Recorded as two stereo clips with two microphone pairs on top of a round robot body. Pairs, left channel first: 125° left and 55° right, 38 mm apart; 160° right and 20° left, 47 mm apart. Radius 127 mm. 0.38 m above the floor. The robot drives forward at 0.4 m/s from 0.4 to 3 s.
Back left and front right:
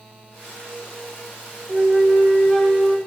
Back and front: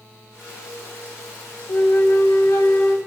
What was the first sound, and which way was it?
A flute, 145° right.